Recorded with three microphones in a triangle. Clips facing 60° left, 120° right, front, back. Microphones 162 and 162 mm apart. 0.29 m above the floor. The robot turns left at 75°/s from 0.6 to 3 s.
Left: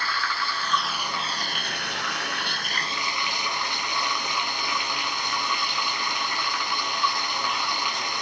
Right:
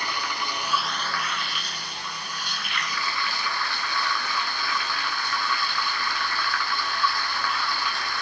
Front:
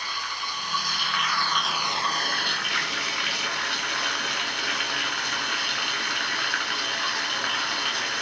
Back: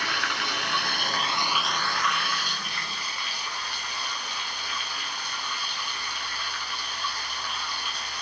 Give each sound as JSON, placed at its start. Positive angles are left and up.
{"t": 0.0, "sound": "running water", "azimuth_deg": 170, "distance_m": 1.0}